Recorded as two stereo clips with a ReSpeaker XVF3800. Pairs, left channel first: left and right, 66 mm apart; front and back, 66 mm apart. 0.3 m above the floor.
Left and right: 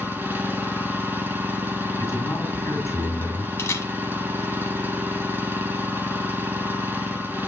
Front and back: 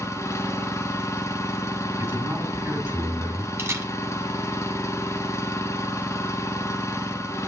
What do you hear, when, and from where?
0.0 s an engine running: 35° right, 1.8 m
2.0 s a man speaking: 125° left, 3 m
3.6 s a camera shutter: 135° left, 1.5 m